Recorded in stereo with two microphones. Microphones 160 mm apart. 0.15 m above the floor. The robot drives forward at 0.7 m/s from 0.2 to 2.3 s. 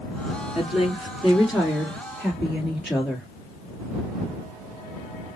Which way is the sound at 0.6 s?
5° right (ahead or behind).